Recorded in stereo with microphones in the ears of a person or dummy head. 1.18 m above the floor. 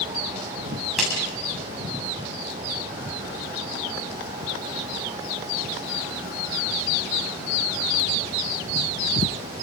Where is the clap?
Centre (ahead or behind), 7 m.